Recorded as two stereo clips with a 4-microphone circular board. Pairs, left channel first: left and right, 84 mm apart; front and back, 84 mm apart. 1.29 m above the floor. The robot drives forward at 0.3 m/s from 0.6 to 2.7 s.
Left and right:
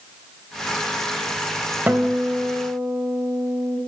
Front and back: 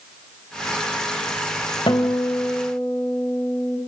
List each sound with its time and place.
1.9 s a guitar: 20° right, 3.5 m; by 3.8 s 25° right, 3 m